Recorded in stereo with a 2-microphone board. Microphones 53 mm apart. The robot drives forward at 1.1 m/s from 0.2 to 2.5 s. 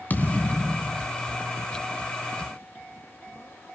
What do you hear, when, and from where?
0.1 s a thud: 30° left (ahead or behind), 1.8 m; by 1.1 s 20° left (ahead or behind), 2.5 m